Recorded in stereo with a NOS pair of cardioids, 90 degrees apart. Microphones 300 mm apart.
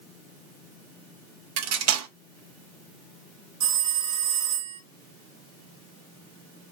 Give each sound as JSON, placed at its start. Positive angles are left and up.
{"t": 1.6, "sound": "cutlery clinking", "azimuth_deg": -65, "distance_m": 0.6}
{"t": 3.6, "sound": "a phone ringing", "azimuth_deg": -65, "distance_m": 1.8}